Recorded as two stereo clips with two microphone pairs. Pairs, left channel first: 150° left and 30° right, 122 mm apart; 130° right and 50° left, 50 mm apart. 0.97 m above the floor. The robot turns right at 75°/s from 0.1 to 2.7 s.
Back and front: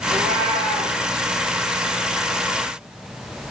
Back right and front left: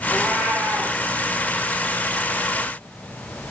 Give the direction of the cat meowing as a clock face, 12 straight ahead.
1 o'clock.